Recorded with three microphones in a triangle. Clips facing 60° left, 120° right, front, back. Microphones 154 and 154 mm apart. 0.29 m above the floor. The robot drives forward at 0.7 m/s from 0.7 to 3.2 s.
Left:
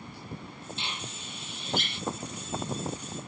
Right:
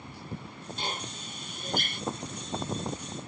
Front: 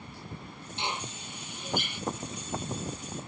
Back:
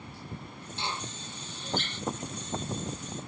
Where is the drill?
75° right; by 2.0 s 80° right.